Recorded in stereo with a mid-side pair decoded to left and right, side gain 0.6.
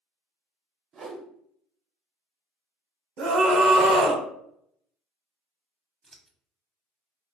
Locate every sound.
0.9 s a whoosh: 45° right, 0.7 m
3.2 s a scream: 60° right, 0.7 m
6.0 s scissors: 20° right, 0.6 m